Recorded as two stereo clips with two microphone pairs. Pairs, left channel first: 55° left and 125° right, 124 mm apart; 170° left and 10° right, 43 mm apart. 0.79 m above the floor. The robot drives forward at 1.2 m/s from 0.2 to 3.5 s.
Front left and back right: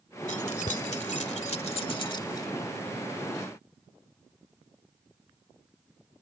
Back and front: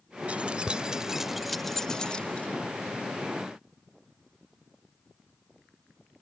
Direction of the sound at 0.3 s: 50° left.